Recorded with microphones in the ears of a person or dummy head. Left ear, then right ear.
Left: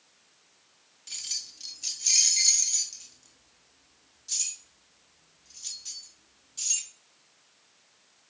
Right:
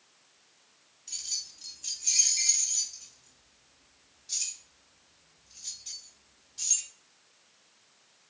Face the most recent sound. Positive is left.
turn(degrees=70)  # may be behind; listen again after turning